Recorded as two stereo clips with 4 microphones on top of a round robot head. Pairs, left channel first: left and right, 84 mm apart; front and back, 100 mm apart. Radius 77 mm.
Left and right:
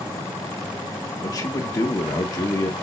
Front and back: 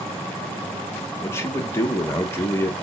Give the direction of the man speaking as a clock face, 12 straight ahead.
10 o'clock.